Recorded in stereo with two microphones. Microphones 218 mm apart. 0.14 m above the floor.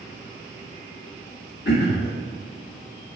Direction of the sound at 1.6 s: 55° left (ahead or behind).